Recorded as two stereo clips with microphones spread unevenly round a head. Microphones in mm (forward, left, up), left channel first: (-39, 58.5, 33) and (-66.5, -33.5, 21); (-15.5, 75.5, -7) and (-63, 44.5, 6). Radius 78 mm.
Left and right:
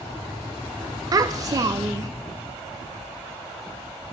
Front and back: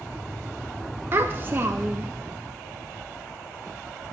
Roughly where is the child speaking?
Right.